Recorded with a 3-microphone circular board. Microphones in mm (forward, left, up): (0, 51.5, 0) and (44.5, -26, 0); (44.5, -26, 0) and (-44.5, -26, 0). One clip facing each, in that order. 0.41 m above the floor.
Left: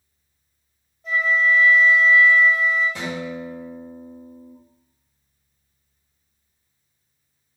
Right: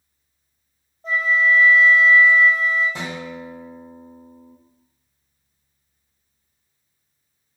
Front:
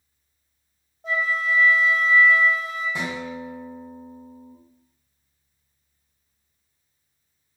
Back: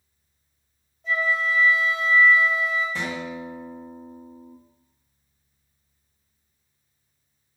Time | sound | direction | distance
1.0 | a flute | 10° right | 1.6 m
3.0 | a guitar | 35° right | 1.3 m